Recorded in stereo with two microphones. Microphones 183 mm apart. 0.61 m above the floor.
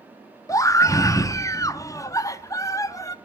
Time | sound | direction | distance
0.5 | a scream | 20° left (ahead or behind) | 0.6 m